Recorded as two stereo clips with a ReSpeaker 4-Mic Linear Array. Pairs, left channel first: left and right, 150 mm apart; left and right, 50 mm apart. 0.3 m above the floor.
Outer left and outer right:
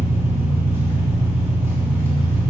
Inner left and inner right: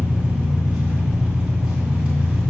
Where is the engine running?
15° right (ahead or behind), 3 m.